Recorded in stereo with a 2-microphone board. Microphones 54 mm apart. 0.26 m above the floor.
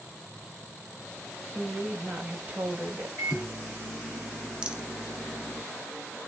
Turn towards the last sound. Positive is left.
turn(degrees=-15)  # may be behind; listen again after turning